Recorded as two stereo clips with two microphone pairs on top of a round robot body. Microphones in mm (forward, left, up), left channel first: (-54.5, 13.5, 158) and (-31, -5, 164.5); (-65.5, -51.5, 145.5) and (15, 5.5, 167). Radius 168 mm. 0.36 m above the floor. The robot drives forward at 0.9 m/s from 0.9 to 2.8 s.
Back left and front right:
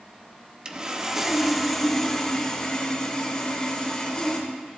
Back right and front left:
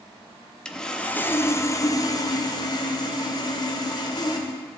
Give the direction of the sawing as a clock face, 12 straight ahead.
4 o'clock.